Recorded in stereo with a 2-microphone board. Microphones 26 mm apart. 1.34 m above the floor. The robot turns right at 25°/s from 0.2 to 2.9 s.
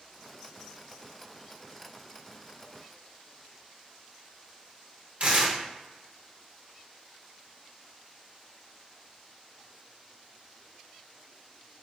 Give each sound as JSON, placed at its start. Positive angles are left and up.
{"t": 5.2, "sound": "tearing paper", "side_deg": -55, "distance_m": 0.8}